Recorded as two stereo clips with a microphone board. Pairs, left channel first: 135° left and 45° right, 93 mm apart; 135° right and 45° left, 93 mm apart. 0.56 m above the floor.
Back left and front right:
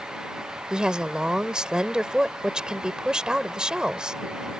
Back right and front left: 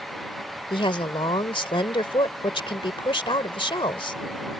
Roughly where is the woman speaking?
Behind right.